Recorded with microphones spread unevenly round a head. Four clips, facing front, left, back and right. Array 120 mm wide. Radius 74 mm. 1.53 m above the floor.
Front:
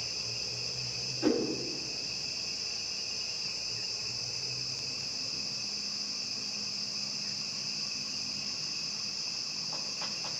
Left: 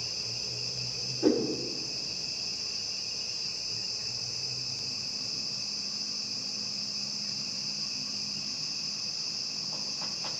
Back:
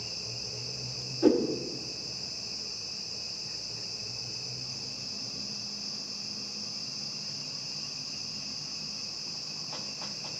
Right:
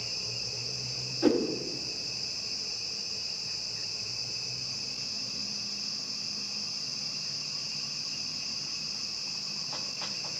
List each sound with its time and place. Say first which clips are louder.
1.2 s a whoosh: even, back 5 dB; 95° right, 1.2 m